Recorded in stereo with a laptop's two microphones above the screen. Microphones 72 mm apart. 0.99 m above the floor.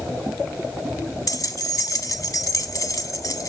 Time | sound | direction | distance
1.3 | keys jangling | 55° left (ahead or behind) | 0.9 m